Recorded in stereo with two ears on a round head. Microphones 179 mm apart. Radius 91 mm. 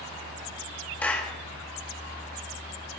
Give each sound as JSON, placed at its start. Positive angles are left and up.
{"t": 1.0, "sound": "a clap", "side_deg": 10, "distance_m": 2.5}